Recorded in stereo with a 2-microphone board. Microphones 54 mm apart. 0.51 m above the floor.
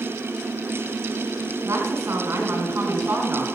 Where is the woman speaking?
65° right (ahead or behind), 5.5 m; by 3.5 s 45° right (ahead or behind), 5.5 m.